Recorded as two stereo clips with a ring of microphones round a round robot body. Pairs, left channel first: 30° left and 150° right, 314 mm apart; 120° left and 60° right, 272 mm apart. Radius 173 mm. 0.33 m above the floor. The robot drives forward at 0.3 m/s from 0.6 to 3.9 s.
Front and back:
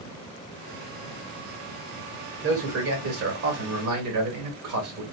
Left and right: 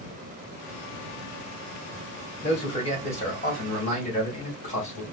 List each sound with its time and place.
2.4 s a man speaking: straight behind, 1.5 m